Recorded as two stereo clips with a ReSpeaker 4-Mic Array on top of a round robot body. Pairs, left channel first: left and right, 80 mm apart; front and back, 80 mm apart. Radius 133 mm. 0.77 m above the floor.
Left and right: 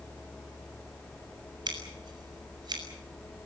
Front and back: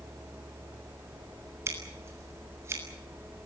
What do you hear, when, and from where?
1.7 s scissors: 120° right, 7 m